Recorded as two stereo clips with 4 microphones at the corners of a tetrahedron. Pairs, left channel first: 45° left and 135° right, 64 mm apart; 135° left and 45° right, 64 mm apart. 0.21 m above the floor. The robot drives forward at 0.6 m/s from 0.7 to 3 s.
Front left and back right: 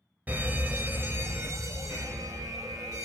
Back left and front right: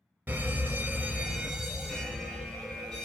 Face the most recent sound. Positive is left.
turn(degrees=-155)